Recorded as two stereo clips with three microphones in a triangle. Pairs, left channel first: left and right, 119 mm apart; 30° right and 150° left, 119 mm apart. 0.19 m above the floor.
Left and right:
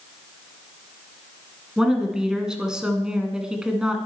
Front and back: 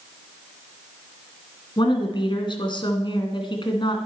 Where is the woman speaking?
10° right, 1.9 m.